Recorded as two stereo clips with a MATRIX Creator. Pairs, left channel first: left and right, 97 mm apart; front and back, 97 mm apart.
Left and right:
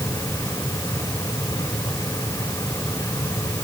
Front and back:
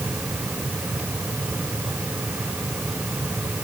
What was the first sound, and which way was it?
Only background noise.